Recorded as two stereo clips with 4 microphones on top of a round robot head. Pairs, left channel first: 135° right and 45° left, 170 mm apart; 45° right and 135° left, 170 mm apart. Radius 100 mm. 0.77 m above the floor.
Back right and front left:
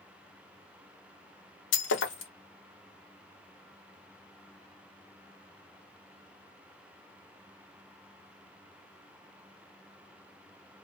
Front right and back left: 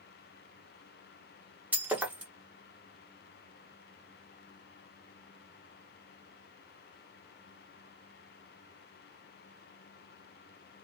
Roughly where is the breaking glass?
Behind right.